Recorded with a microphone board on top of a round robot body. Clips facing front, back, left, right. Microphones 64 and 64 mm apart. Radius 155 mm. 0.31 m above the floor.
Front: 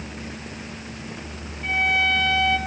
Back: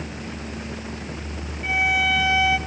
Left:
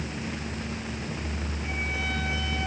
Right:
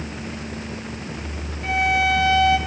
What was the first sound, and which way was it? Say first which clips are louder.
A violin: even, right 14 dB; 95° right.